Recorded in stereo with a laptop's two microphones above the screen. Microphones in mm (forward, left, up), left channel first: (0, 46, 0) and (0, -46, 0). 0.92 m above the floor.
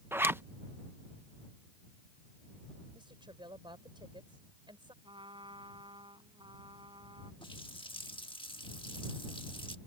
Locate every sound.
0.1 s a zipper: 25° right (ahead or behind)
2.9 s a woman speaking: 70° right (ahead or behind)
5.0 s a trumpet: 85° right
7.4 s a running tap: 85° left